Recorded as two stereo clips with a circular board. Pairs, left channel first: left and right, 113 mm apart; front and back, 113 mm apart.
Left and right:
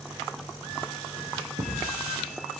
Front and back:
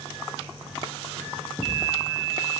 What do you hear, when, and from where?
1.6 s a thud: 90° right, 8.5 m